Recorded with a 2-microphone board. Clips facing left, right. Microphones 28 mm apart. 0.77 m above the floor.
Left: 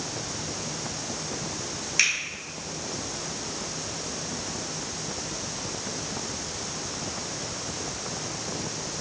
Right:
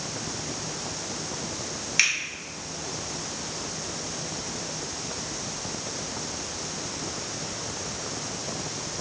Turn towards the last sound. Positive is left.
turn(degrees=-20)  # may be behind; listen again after turning